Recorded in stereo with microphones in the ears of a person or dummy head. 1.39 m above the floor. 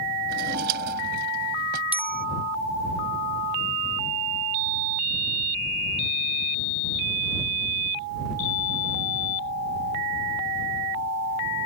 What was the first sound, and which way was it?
A drawer, 60° right (ahead or behind).